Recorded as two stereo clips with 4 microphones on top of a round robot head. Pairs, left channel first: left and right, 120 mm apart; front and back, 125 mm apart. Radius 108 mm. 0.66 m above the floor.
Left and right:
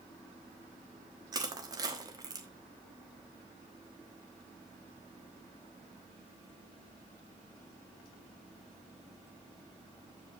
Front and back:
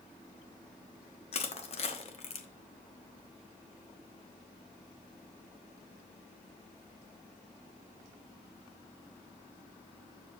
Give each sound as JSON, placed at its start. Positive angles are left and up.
{"t": 1.3, "sound": "crushing", "azimuth_deg": -35, "distance_m": 1.2}